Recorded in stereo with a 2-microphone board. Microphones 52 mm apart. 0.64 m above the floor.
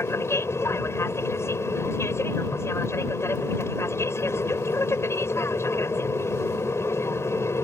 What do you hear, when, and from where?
0.0 s an aircraft: 60° left (ahead or behind)